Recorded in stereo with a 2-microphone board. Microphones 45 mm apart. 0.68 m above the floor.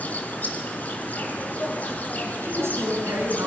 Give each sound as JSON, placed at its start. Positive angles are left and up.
{"t": 0.0, "sound": "an insect", "side_deg": 40, "distance_m": 2.5}
{"t": 2.4, "sound": "a woman speaking", "side_deg": -80, "distance_m": 8.5}